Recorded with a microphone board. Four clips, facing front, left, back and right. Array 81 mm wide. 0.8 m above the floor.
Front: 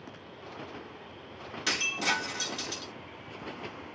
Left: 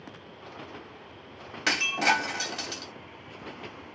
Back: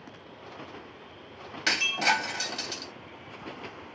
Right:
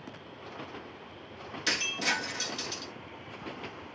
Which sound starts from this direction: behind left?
Breaking glass, at 1.7 s.